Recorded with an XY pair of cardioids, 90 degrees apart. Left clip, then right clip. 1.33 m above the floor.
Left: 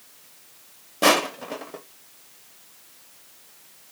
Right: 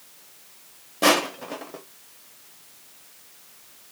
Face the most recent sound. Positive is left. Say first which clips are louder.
# left 1 dB
turn(degrees=15)